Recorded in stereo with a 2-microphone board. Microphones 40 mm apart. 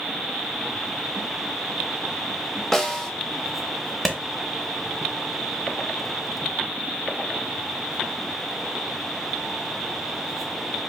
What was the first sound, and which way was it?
A snare drum, 5° left (ahead or behind).